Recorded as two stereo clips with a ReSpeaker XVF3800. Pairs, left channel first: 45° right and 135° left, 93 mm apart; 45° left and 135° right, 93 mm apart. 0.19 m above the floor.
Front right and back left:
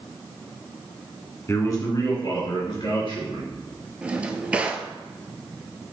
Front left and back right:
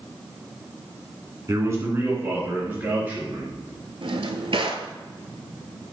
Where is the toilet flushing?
I don't hear a toilet flushing.